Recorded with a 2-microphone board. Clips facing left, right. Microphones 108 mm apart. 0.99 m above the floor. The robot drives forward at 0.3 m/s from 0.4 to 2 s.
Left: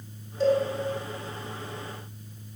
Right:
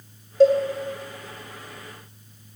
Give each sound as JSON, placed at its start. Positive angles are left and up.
{"t": 0.4, "sound": "a cowbell", "side_deg": -70, "distance_m": 1.7}